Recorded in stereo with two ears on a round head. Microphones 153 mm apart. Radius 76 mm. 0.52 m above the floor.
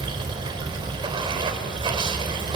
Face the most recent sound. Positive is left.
turn(degrees=-30)  # may be behind; listen again after turning